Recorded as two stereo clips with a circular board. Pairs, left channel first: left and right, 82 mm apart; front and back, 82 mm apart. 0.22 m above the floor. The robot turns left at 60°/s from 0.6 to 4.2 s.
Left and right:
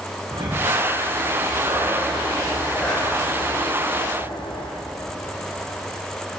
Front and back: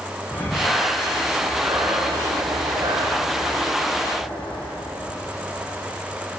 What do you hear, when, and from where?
0.3 s breathing: 65° right, 8 m; by 4.7 s 75° left, 8 m